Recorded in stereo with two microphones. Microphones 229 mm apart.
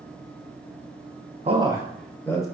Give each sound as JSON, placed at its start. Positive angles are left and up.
{"t": 1.4, "sound": "a man speaking", "side_deg": -30, "distance_m": 0.8}